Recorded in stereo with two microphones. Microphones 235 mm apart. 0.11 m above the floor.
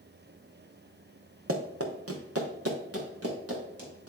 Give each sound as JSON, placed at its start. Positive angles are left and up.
{"t": 1.5, "sound": "running footsteps", "side_deg": -70, "distance_m": 1.2}